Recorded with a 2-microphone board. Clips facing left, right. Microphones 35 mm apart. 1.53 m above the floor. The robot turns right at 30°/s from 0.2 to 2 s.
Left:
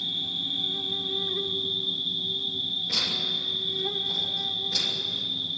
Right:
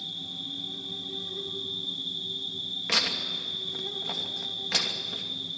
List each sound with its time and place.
0.0 s an insect: 75° left, 1.2 m; by 5.6 s 130° left, 1.2 m
2.9 s tearing paper: 85° right, 2.5 m